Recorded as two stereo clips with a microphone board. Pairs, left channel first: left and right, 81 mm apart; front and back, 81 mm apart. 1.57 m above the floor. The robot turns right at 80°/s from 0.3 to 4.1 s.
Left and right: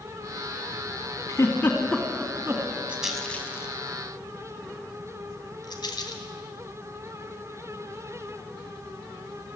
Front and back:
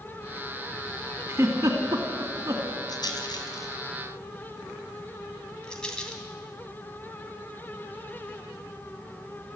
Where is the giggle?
130° left, 2.5 m; by 2.7 s 115° right, 2.5 m.